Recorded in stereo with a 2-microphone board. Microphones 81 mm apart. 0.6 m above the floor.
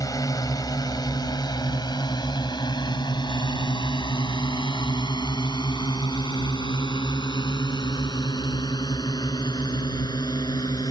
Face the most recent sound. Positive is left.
turn(degrees=65)  # may be behind; listen again after turning